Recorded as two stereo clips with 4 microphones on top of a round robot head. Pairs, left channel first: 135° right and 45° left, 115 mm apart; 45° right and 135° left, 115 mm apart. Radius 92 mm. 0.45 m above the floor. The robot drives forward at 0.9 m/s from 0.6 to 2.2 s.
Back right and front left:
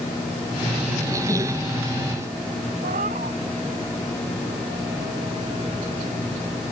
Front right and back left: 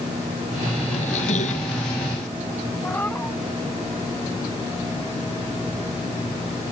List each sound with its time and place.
0.9 s a squeak: 20° right
2.8 s a cat meowing: 30° left